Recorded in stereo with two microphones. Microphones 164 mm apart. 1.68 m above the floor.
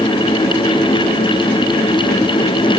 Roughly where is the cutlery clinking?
I don't hear cutlery clinking.